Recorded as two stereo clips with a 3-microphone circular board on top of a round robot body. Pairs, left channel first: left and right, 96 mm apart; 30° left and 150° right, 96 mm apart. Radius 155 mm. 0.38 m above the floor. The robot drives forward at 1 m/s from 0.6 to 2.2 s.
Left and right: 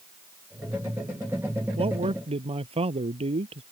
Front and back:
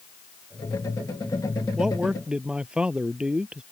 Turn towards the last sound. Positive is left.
turn(degrees=-70)